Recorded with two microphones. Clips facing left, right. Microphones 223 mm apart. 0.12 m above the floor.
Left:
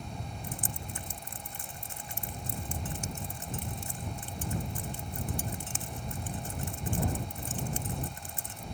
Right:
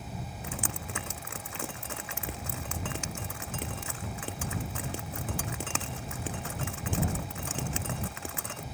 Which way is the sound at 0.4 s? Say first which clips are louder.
Right 3 dB; 80° right.